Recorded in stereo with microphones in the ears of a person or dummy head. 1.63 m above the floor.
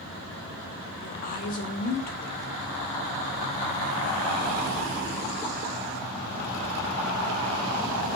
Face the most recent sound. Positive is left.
turn(degrees=55)  # may be behind; listen again after turning